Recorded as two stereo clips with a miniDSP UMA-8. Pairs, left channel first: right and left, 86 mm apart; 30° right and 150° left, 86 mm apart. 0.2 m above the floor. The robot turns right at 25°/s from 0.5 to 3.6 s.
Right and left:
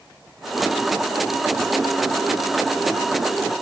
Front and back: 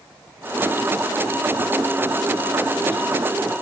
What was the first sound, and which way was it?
Only background noise.